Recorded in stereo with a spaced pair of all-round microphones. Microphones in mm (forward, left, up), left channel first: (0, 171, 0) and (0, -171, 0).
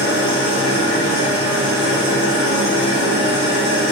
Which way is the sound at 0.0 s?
15° left (ahead or behind).